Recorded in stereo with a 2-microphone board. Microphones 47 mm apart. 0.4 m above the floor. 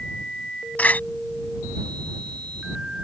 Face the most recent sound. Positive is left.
turn(degrees=35)  # may be behind; listen again after turning